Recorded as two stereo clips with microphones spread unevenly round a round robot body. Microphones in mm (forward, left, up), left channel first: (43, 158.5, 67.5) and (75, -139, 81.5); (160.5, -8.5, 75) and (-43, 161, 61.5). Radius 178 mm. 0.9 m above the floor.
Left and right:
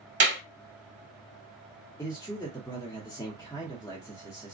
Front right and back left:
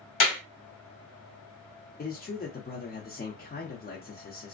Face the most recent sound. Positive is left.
turn(degrees=15)